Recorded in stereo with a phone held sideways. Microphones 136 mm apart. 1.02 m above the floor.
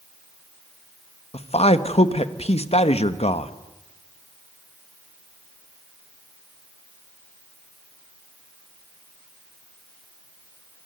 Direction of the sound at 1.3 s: 45° left (ahead or behind).